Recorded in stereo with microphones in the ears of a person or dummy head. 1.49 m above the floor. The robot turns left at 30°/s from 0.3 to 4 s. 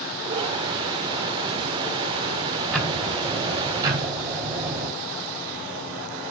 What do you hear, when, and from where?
2.7 s ticking: 15° left, 2 m; by 4.9 s 25° right, 2 m